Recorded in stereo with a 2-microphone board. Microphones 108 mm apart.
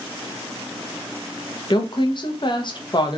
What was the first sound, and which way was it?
A woman speaking, 45° left (ahead or behind).